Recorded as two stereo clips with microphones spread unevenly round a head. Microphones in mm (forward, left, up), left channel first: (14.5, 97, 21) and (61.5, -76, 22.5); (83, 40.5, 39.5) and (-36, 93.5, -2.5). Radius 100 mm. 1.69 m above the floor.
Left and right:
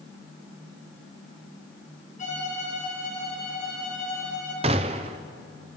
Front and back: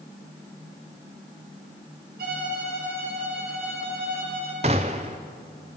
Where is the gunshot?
135° right, 0.7 m.